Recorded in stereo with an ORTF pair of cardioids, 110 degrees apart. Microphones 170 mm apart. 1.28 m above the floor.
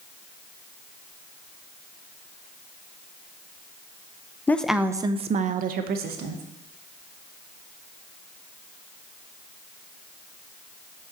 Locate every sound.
4.5 s a woman speaking: 10° left, 0.6 m; by 6.4 s 75° right, 1.1 m